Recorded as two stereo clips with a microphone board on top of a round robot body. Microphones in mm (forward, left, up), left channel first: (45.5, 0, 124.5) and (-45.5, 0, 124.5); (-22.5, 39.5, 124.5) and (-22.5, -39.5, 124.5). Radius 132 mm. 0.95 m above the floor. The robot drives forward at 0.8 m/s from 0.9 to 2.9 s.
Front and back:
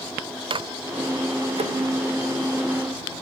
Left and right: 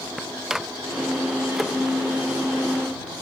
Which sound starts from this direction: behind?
A microwave, at 0.5 s.